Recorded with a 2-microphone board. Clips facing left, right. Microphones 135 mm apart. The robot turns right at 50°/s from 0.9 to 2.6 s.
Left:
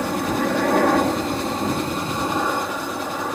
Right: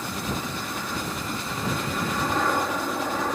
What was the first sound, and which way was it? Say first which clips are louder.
A helicopter: left 9 dB; 90° left.